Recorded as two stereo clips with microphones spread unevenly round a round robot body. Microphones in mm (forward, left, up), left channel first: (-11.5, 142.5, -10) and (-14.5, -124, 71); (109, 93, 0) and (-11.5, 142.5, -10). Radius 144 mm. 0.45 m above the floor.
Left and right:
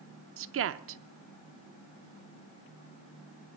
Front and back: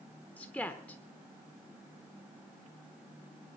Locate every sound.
0.4 s a woman speaking: 100° right, 0.7 m